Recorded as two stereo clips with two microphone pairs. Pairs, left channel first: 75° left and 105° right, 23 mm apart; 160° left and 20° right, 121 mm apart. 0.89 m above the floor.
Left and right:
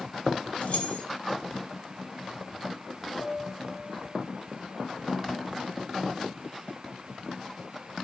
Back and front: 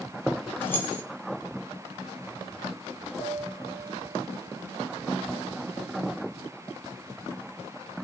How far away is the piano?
About 0.9 m.